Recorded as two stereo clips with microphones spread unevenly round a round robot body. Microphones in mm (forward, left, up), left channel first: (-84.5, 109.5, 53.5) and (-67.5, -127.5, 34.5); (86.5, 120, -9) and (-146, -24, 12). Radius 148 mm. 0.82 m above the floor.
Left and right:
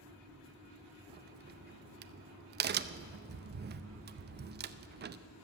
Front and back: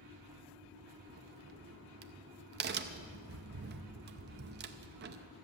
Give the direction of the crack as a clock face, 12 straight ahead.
3 o'clock.